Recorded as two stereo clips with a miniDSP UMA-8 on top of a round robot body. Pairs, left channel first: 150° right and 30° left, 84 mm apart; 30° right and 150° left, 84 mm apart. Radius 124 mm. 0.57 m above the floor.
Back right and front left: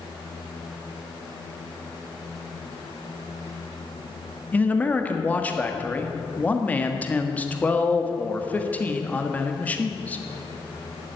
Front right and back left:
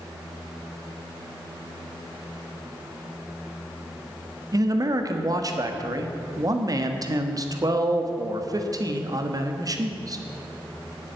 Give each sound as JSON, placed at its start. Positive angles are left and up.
{"t": 4.5, "sound": "a man speaking", "azimuth_deg": 145, "distance_m": 1.6}